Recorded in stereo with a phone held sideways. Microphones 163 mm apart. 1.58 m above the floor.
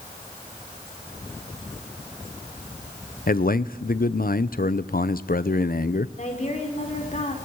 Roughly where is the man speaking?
Left.